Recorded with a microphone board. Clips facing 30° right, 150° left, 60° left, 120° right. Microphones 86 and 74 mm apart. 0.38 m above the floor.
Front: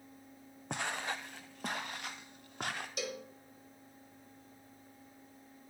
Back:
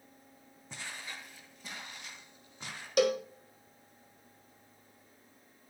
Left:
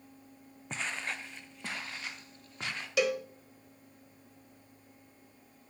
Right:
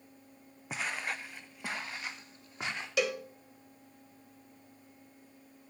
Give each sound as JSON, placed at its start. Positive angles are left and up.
{"t": 0.7, "sound": "footsteps", "azimuth_deg": -40, "distance_m": 1.0}
{"t": 3.0, "sound": "a cowbell", "azimuth_deg": 150, "distance_m": 0.5}